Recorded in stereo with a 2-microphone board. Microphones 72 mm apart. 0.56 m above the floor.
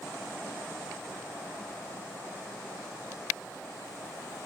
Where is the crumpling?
I don't hear crumpling.